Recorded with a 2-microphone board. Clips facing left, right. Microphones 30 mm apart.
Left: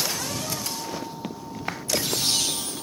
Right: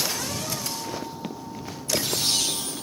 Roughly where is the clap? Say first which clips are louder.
Left 6 dB; left.